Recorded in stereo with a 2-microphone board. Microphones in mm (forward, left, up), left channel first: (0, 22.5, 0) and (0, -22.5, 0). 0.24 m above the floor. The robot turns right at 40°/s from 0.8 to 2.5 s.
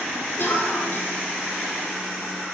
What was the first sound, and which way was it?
A cough, 55° left (ahead or behind).